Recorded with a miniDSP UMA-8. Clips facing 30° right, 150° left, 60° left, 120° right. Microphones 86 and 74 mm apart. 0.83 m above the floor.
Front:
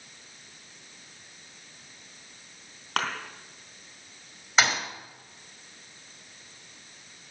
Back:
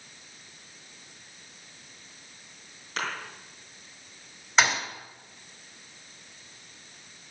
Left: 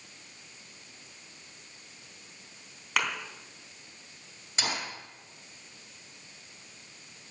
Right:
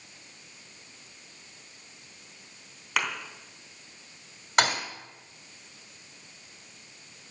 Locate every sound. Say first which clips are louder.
3.0 s a thud: front 4 dB, even; 30° right, 3 m
4.6 s a thud: back 1 dB, right 9 dB; 120° right, 2 m